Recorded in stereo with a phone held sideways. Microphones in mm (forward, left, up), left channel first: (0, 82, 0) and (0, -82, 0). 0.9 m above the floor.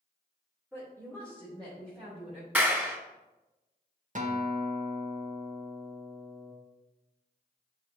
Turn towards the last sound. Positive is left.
turn(degrees=-50)  # may be behind; listen again after turning